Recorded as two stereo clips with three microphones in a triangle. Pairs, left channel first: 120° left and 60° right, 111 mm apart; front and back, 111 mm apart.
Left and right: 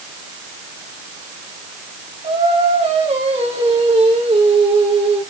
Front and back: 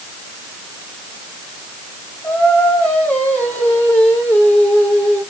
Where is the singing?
75° right, 8.5 m.